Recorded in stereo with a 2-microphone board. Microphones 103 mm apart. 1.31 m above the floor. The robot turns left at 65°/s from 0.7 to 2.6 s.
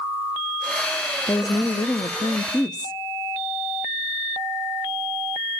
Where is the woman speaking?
140° left, 0.7 m; by 3.0 s 50° left, 0.7 m.